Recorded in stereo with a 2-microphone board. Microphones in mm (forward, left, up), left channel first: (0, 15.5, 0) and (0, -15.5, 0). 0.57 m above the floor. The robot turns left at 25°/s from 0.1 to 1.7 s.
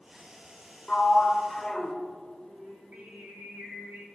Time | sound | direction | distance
0.9 | a sliding door | 35° left (ahead or behind) | 1.5 m
2.5 | singing | 80° right | 4.5 m